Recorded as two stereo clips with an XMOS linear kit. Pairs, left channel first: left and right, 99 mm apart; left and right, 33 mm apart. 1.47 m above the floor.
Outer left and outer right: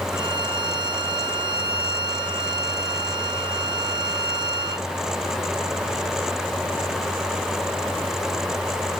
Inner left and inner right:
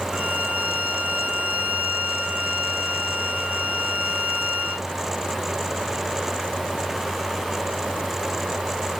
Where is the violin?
40° right (ahead or behind), 2 m.